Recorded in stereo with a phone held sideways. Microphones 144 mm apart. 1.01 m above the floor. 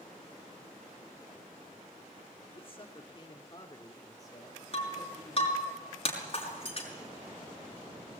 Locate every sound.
2.5 s a man speaking: 40° left (ahead or behind), 3 m; by 5.7 s 20° left (ahead or behind), 6 m
4.7 s breaking glass: 40° left (ahead or behind), 6 m